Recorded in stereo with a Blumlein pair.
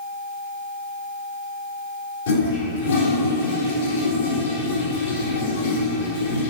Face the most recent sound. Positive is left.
turn(degrees=55)